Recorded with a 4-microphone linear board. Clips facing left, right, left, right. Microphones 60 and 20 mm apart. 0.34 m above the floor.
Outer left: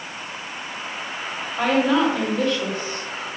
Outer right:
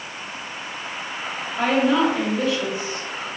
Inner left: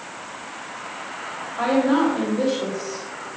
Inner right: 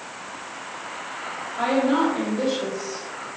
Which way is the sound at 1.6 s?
10° right (ahead or behind).